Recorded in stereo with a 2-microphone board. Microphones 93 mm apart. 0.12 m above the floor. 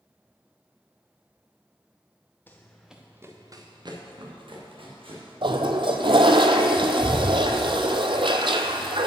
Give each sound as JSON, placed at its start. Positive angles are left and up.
{"t": 2.5, "sound": "running footsteps", "side_deg": 20, "distance_m": 1.3}
{"t": 5.4, "sound": "a toilet flushing", "side_deg": -60, "distance_m": 0.7}